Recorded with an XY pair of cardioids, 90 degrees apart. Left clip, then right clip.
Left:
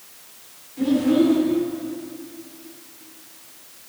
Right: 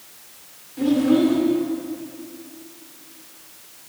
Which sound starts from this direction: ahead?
A child speaking, at 0.8 s.